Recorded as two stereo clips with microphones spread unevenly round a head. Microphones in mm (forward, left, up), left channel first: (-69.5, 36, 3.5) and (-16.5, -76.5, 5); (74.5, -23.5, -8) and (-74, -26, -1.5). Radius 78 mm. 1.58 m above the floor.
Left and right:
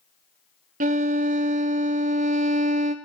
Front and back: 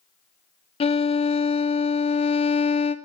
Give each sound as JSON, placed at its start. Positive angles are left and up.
{"t": 0.8, "sound": "a violin", "azimuth_deg": -50, "distance_m": 0.5}